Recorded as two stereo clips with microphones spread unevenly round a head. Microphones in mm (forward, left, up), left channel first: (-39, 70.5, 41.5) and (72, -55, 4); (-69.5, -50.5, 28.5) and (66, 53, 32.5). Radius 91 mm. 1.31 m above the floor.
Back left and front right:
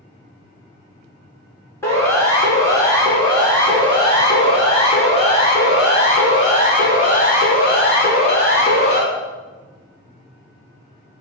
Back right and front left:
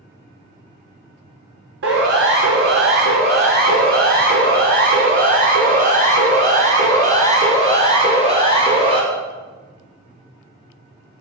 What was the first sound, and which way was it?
A siren, 55° left.